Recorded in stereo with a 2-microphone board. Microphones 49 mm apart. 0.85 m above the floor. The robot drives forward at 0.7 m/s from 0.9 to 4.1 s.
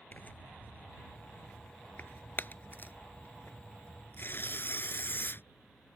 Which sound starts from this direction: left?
Tearing paper, at 0.1 s.